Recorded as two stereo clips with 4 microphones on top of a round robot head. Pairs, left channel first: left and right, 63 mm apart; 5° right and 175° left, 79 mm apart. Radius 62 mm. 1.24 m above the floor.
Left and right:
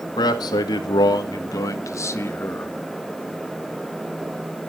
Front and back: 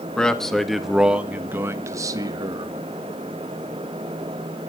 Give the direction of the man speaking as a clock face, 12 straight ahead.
9 o'clock.